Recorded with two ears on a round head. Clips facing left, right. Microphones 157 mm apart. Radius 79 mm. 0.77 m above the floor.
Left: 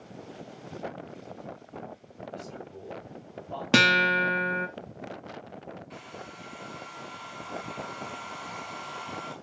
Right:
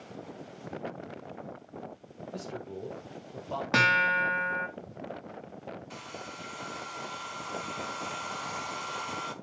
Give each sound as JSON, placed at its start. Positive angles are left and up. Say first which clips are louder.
{"t": 2.3, "sound": "a man speaking", "louder": "right 4 dB", "side_deg": -80, "distance_m": 2.5}
{"t": 3.7, "sound": "a guitar", "louder": "left 6 dB", "side_deg": 40, "distance_m": 1.5}
{"t": 5.9, "sound": "a hair dryer", "louder": "even", "side_deg": -55, "distance_m": 1.8}